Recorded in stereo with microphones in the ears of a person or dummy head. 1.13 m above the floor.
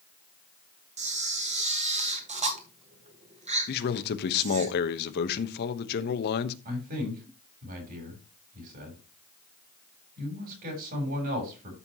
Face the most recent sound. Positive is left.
turn(degrees=-55)  # may be behind; listen again after turning